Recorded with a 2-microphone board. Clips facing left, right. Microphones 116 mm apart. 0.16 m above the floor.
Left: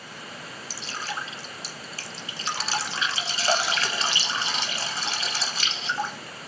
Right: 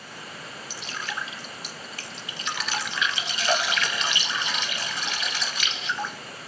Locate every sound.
0.7 s dripping: 35° left (ahead or behind), 1.5 m